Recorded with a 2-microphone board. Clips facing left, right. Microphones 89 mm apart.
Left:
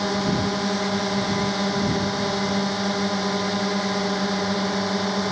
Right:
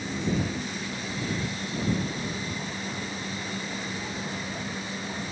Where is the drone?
80° left.